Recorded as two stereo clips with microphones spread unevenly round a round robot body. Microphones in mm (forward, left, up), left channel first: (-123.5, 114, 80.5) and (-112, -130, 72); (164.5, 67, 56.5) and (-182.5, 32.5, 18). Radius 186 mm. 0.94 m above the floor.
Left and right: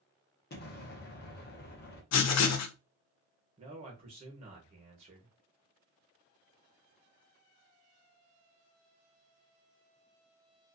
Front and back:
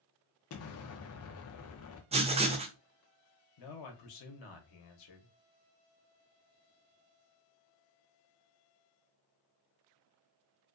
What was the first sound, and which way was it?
An explosion, 50° left.